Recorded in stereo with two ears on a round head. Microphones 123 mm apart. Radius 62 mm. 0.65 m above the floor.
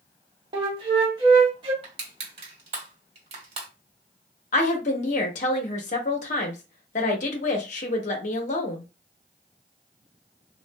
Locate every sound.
0.5 s a flute: 35° right (ahead or behind), 1.0 m
1.8 s crushing: 45° right (ahead or behind), 1.3 m
4.5 s a woman speaking: 55° left (ahead or behind), 1.0 m